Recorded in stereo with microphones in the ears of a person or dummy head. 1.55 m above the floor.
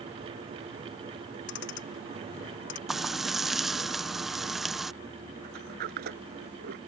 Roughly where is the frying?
Centre.